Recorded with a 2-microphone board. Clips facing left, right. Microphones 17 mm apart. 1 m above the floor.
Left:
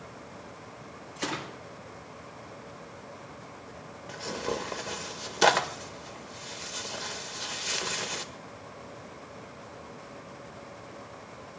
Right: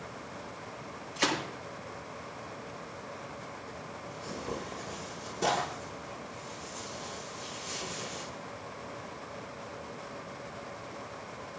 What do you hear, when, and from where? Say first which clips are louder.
1.2 s a gunshot: right 4 dB; 20° right (ahead or behind), 9 m
4.1 s tearing paper: left 7 dB; 70° left (ahead or behind), 1.6 m